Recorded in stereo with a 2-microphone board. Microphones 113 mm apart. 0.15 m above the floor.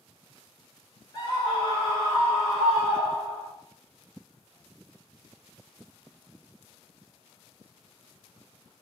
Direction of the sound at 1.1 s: 40° left (ahead or behind).